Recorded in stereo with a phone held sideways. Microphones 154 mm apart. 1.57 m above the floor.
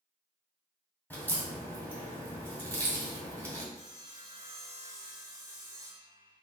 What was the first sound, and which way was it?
A crack, 10° left (ahead or behind).